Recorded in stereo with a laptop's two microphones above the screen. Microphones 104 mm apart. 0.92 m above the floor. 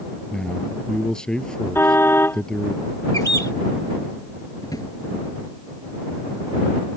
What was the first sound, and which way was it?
A man speaking, 10° left (ahead or behind).